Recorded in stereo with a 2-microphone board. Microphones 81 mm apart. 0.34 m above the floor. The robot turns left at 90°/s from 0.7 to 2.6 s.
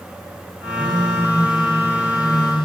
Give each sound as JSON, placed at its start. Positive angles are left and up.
{"t": 0.8, "sound": "a phone buzzing", "azimuth_deg": -105, "distance_m": 5.5}